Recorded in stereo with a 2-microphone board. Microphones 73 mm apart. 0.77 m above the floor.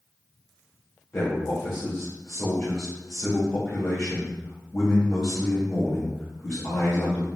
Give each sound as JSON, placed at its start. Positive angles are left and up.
{"t": 1.1, "sound": "a man speaking", "side_deg": 35, "distance_m": 1.5}